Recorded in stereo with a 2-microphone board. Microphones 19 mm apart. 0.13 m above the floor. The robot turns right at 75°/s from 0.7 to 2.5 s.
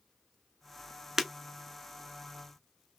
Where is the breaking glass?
20° right (ahead or behind), 0.7 m; by 1.3 s 10° right (ahead or behind), 0.7 m.